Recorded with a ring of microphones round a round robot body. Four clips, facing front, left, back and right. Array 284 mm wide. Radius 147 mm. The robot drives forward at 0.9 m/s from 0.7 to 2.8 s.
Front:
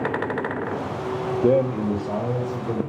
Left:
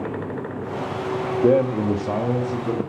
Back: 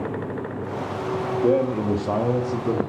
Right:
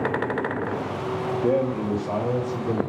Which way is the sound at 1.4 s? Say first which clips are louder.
Left 6 dB, front 1 dB; 60° left.